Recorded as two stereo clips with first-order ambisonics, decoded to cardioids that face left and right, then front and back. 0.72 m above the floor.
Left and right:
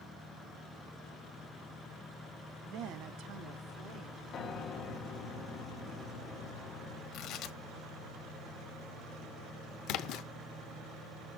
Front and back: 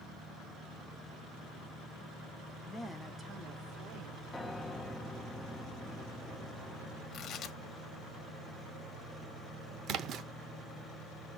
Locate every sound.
2.6 s a woman speaking: 60° right, 1.2 m; by 4.2 s 150° right, 2.5 m
4.3 s a piano: 80° left, 1.0 m
7.1 s tearing paper: 50° left, 1.0 m
9.9 s a splash: 130° left, 0.7 m